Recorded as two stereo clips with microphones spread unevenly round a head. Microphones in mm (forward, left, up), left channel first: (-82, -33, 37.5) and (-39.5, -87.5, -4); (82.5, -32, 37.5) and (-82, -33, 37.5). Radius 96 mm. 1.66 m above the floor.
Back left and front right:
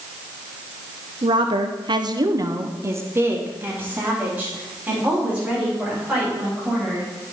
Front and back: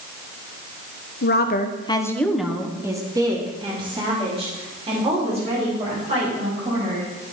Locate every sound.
1.2 s a woman speaking: 20° right, 1.0 m; by 7.1 s 130° right, 6 m